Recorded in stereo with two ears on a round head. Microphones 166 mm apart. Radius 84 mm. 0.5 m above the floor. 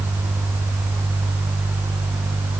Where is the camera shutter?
I don't hear a camera shutter.